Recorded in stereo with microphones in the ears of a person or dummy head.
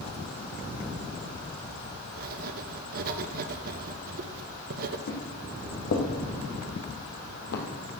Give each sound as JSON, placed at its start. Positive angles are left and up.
{"t": 2.2, "sound": "writing", "side_deg": -50, "distance_m": 0.9}
{"t": 5.1, "sound": "footsteps", "side_deg": 60, "distance_m": 3.5}